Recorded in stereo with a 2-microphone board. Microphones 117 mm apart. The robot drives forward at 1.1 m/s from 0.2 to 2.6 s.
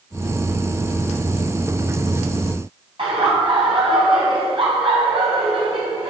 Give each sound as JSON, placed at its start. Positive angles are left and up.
{"t": 3.0, "sound": "laughter", "side_deg": -50, "distance_m": 2.5}